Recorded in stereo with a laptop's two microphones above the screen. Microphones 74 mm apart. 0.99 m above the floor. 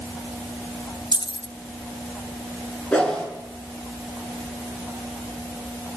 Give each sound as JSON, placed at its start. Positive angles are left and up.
{"t": 1.1, "sound": "keys jangling", "side_deg": 85, "distance_m": 0.6}
{"t": 2.9, "sound": "a whoosh", "side_deg": 15, "distance_m": 6.5}